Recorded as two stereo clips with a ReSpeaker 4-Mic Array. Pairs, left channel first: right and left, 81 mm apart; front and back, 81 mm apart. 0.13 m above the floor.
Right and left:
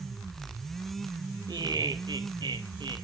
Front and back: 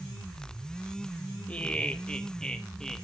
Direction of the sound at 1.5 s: 70° left.